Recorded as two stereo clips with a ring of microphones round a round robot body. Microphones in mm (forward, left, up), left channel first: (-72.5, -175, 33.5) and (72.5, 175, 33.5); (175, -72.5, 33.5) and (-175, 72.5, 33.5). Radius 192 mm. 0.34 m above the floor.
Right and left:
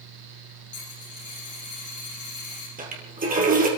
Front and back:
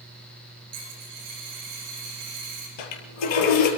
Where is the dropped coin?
175° right, 8 m.